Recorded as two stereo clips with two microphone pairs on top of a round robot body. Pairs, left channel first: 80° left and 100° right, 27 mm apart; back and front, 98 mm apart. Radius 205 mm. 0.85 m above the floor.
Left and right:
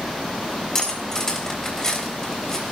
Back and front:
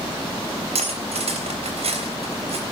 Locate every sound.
0.8 s cutlery clinking: 5° left, 3.5 m